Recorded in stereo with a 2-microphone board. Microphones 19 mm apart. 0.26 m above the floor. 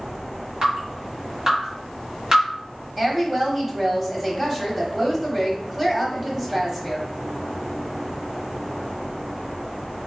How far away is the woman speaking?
About 1.0 m.